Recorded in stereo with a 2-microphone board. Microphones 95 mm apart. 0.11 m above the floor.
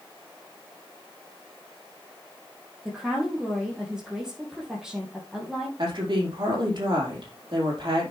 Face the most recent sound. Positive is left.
turn(degrees=-55)  # may be behind; listen again after turning